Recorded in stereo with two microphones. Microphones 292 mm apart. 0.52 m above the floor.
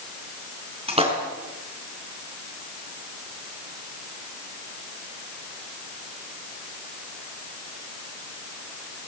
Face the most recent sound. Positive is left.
turn(degrees=-20)  # may be behind; listen again after turning